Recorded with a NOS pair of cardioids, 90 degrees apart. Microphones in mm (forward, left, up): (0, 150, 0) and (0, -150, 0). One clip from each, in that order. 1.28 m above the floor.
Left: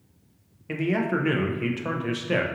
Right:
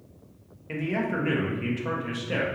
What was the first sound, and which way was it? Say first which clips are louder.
A man speaking: left 3 dB; 25° left.